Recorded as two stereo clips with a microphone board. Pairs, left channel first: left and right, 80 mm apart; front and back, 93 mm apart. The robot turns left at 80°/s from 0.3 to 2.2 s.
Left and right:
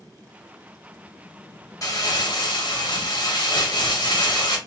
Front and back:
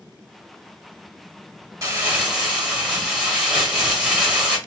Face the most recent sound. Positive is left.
turn(degrees=100)